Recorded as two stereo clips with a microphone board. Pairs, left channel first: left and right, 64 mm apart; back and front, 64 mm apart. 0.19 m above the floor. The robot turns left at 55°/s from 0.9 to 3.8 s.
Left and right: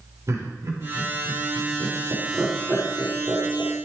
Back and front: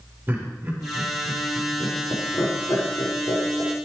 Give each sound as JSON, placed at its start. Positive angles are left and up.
{"t": 0.3, "sound": "laughter", "azimuth_deg": -55, "distance_m": 5.0}